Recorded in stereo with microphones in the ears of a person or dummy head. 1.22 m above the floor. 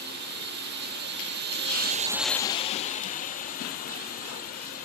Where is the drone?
50° right (ahead or behind); by 4.8 s 45° left (ahead or behind).